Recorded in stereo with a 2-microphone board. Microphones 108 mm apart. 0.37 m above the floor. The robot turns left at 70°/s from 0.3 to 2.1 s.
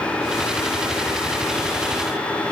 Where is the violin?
I don't hear a violin.